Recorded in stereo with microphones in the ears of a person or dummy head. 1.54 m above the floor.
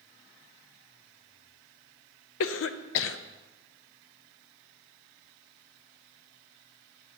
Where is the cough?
70° left (ahead or behind), 0.5 m.